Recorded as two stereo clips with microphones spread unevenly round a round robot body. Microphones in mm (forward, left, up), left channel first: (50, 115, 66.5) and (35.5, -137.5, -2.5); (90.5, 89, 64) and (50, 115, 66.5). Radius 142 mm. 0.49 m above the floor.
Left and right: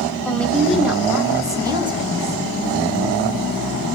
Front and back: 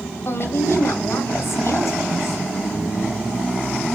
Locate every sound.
0.2 s a woman speaking: straight ahead, 3.5 m; by 2.4 s 30° right, 4 m